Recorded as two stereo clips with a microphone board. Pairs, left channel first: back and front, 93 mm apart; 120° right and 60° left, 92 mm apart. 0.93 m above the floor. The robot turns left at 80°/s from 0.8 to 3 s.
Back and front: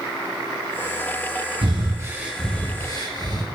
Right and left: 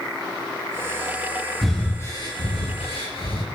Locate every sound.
1.6 s breathing: 25° right, 4.5 m; by 3.5 s 140° right, 4.5 m